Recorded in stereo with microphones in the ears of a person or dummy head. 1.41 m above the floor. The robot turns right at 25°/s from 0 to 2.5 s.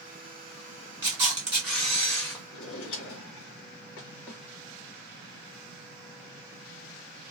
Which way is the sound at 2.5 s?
65° left (ahead or behind).